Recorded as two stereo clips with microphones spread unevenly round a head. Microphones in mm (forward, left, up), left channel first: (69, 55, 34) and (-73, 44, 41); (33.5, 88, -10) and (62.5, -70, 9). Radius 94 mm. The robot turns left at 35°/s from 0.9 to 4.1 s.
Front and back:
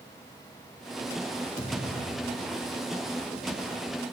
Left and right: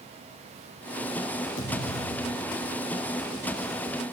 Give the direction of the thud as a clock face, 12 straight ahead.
8 o'clock.